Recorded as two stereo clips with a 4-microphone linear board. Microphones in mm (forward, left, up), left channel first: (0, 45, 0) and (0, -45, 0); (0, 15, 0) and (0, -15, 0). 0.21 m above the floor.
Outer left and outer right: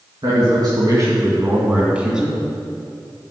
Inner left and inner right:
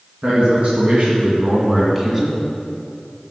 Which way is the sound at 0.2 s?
55° right (ahead or behind).